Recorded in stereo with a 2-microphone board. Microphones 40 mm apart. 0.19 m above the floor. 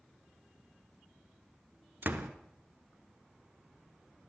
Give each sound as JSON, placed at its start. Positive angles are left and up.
{"t": 2.0, "sound": "a door slam", "side_deg": -55, "distance_m": 1.7}